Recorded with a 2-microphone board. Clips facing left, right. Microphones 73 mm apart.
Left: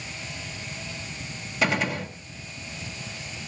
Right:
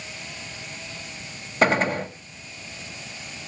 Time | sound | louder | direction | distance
1.6 | a gunshot | right 5 dB | 35° right (ahead or behind) | 1.8 m